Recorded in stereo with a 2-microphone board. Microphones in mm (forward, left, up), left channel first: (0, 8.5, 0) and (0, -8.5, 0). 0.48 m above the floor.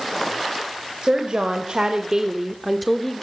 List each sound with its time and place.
1.0 s a woman speaking: 60° right (ahead or behind), 2 m; by 3.2 s 15° left (ahead or behind), 1.4 m